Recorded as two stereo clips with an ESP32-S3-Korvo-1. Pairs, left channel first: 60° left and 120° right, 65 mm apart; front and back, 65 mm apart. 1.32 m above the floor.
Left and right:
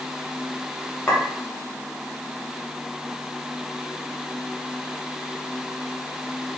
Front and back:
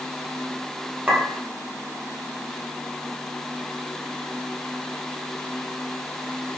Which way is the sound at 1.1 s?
110° left.